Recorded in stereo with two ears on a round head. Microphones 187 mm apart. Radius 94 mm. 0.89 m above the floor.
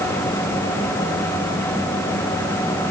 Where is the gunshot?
I don't hear a gunshot.